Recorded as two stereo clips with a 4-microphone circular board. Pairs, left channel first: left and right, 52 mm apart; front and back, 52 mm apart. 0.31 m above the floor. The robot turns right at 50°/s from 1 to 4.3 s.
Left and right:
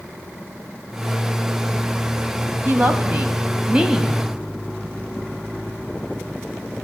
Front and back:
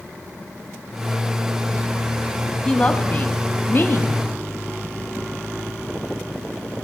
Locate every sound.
2.6 s a woman speaking: 75° right, 1.9 m; by 4.2 s straight ahead, 1.9 m